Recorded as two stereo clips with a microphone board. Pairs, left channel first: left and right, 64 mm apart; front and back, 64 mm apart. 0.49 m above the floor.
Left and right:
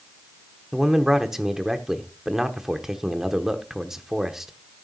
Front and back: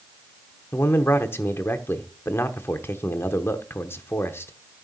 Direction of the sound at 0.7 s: 5° right.